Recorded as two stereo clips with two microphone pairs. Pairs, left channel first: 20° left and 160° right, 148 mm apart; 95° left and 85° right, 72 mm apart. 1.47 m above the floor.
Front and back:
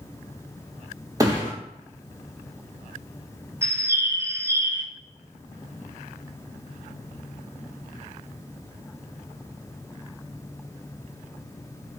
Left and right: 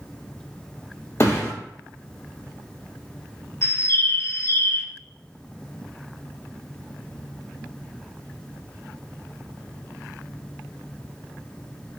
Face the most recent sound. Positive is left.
turn(degrees=135)